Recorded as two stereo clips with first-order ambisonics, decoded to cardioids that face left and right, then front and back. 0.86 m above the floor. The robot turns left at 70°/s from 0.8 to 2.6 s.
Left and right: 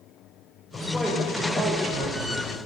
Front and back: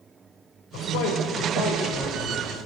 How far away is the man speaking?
About 3.5 m.